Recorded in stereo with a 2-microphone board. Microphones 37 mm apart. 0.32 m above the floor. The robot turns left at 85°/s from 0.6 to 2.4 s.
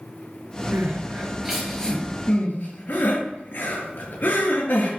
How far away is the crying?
About 3.5 m.